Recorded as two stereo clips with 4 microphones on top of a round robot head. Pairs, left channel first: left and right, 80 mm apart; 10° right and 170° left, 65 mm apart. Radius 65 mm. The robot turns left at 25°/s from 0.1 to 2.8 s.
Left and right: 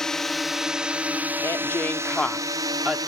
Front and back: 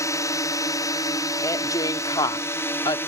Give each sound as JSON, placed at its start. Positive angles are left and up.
{"t": 0.0, "sound": "a drone", "azimuth_deg": 10}
{"t": 1.4, "sound": "a woman speaking", "azimuth_deg": 30}